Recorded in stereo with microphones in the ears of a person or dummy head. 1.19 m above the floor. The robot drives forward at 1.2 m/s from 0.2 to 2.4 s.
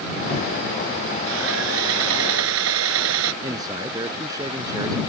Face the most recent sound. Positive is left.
turn(degrees=-20)  # may be behind; listen again after turning